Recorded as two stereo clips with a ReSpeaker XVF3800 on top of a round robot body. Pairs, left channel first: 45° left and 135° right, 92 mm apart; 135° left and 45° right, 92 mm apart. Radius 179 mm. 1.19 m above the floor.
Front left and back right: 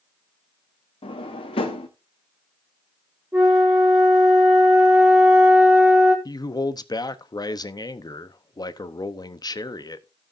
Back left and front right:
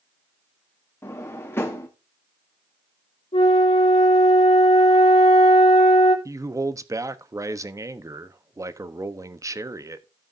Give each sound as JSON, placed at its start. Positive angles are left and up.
{"t": 1.0, "sound": "a drawer", "azimuth_deg": 70, "distance_m": 0.9}
{"t": 3.3, "sound": "a flute", "azimuth_deg": 150, "distance_m": 3.0}
{"t": 6.2, "sound": "a man speaking", "azimuth_deg": 5, "distance_m": 1.0}